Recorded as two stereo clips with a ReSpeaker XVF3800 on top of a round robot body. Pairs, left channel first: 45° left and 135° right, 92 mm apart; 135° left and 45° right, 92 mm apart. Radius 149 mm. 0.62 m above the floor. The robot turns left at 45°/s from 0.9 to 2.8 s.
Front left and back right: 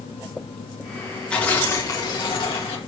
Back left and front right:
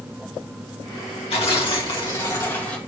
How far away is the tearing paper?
About 2.5 m.